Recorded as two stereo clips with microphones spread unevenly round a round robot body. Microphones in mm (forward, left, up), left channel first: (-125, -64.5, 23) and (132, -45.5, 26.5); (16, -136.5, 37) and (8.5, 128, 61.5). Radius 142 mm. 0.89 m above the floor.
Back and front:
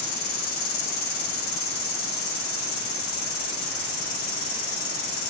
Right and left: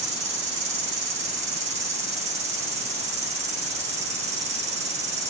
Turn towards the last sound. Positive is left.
turn(degrees=160)